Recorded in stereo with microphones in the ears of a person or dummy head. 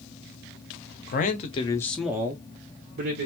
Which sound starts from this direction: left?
A man speaking, at 1.1 s.